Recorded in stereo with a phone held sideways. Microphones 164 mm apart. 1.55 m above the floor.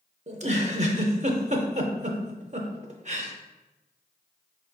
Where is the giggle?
45° right (ahead or behind), 0.5 m.